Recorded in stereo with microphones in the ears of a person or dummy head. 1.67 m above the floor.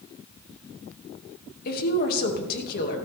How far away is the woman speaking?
About 2.5 m.